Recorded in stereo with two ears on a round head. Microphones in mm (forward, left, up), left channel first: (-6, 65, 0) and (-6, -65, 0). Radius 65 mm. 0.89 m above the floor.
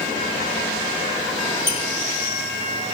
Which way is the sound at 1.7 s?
30° left (ahead or behind).